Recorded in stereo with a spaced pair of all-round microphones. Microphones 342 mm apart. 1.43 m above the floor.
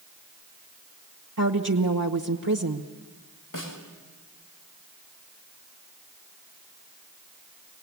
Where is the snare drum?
65° left (ahead or behind), 3 m.